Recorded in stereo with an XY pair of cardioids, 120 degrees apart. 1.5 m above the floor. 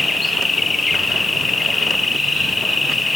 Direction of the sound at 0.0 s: 20° left.